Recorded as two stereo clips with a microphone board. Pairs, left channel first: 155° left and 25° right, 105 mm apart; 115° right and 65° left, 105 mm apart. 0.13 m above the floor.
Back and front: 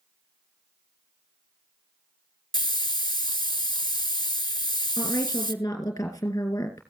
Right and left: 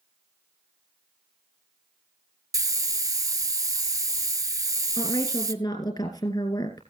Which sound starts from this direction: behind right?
A woman speaking, at 5.0 s.